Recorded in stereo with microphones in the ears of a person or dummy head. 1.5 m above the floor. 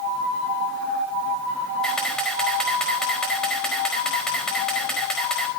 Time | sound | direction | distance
1.8 | a camera shutter | 5° left (ahead or behind) | 4.5 m